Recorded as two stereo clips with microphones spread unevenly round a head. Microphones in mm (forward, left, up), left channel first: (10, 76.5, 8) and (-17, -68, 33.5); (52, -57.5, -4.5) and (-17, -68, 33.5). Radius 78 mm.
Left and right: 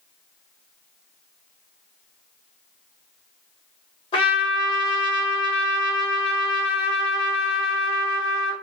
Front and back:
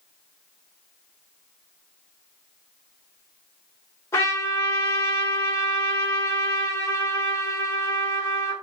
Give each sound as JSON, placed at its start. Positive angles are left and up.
{"t": 4.1, "sound": "a trumpet", "azimuth_deg": 105, "distance_m": 0.8}